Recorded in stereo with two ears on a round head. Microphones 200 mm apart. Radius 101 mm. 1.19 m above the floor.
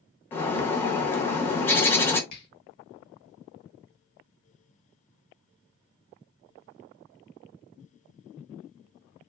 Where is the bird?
10° left (ahead or behind), 0.7 m.